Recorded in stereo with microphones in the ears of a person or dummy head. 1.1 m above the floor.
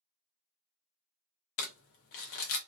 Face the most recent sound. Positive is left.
turn(degrees=50)  # may be behind; listen again after turning